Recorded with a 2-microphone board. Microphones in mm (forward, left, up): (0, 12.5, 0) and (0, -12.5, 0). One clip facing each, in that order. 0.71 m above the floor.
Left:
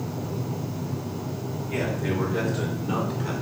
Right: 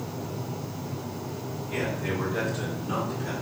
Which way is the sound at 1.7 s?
10° right (ahead or behind).